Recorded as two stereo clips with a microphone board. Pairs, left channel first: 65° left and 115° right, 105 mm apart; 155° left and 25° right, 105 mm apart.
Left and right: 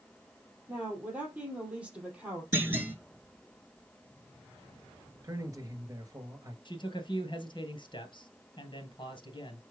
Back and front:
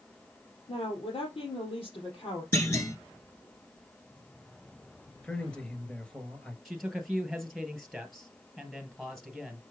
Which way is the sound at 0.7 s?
175° left.